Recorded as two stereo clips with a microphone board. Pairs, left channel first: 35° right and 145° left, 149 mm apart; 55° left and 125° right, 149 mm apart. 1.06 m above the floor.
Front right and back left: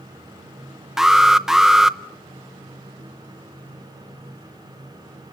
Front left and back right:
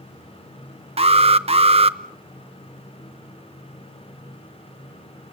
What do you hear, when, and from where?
1.0 s an alarm: 130° right, 0.7 m